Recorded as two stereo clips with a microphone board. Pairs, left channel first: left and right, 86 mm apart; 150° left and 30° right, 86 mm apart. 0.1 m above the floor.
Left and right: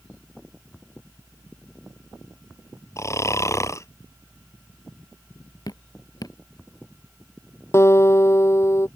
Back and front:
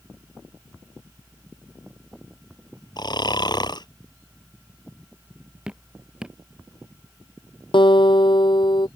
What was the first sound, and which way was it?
Snoring, 135° left.